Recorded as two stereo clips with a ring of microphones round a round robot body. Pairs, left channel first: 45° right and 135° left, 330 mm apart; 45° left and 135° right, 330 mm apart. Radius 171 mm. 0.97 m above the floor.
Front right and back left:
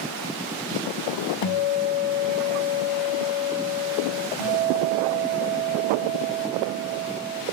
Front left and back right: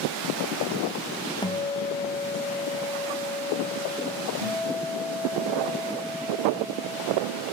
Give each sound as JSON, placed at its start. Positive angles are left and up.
{"t": 1.4, "sound": "a guitar", "azimuth_deg": -30, "distance_m": 0.6}
{"t": 4.4, "sound": "a guitar", "azimuth_deg": 130, "distance_m": 2.5}